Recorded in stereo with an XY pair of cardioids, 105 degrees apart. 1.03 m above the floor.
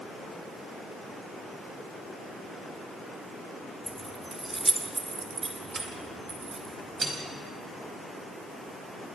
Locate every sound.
3.9 s keys jangling: 5° right, 1.5 m; by 7.1 s 40° right, 4.5 m